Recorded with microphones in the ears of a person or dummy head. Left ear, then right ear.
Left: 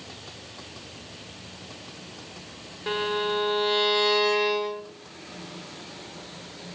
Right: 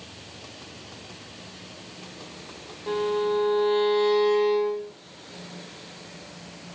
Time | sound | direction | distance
2.9 | a violin | 55° left (ahead or behind) | 1.3 m